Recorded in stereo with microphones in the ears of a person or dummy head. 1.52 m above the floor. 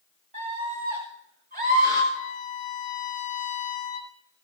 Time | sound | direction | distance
0.3 | a scream | 40° right (ahead or behind) | 3.5 m
2.1 | a violin | 40° left (ahead or behind) | 2.5 m